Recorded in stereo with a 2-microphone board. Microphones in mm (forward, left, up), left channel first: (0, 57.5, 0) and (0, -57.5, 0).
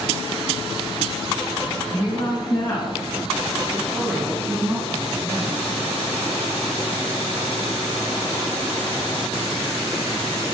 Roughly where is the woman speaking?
Left.